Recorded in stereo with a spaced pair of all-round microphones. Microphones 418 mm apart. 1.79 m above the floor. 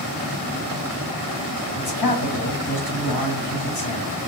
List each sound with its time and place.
1.8 s a man speaking: 55° left (ahead or behind), 1.2 m